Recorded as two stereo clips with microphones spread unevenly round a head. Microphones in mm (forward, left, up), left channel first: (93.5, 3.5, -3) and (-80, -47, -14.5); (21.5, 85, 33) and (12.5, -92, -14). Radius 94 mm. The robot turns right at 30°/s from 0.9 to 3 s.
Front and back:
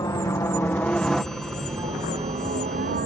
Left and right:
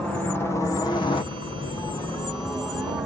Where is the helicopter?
25° right; by 3.1 s 165° right.